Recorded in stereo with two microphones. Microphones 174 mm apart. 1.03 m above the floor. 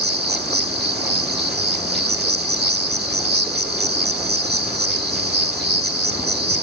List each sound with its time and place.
0.0 s an insect: 65° right (ahead or behind), 1.9 m